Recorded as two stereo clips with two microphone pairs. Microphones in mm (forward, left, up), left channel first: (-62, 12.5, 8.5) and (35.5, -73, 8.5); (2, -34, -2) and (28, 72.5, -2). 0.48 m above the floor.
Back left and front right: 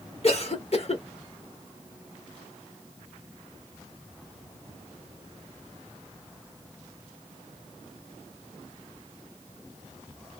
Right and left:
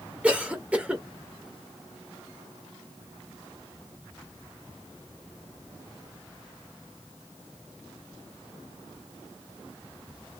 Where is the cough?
150° left, 1.1 m.